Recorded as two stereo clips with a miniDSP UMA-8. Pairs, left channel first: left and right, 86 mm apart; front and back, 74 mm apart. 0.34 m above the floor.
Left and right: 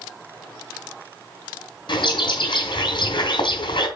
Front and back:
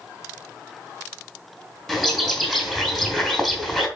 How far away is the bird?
About 3 m.